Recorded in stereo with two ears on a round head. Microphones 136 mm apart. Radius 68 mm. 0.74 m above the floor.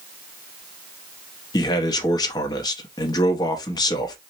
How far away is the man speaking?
About 0.8 m.